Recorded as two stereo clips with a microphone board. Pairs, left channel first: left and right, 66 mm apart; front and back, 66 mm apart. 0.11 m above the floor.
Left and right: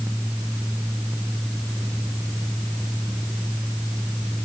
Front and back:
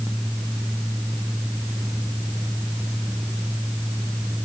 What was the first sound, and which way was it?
Only background noise.